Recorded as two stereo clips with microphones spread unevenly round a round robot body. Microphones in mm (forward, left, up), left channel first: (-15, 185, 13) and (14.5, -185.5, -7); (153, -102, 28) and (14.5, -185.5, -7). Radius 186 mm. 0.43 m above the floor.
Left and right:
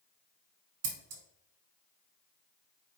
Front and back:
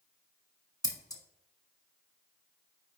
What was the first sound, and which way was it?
Scissors, 40° right.